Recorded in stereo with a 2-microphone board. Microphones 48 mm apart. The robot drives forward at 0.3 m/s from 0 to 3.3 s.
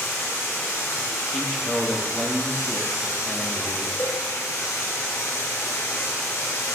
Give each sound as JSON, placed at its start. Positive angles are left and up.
{"t": 0.0, "sound": "running water", "side_deg": 65, "distance_m": 1.5}
{"t": 1.3, "sound": "a man speaking", "side_deg": 0, "distance_m": 0.5}
{"t": 4.0, "sound": "a cowbell", "side_deg": 40, "distance_m": 1.3}